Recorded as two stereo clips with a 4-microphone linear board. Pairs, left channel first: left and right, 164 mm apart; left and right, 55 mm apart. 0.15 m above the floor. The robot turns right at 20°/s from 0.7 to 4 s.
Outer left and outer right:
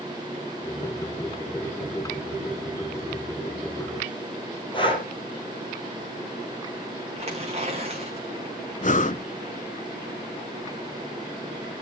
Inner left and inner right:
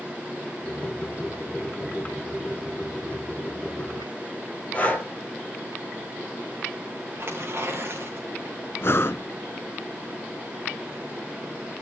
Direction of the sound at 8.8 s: 50° left (ahead or behind).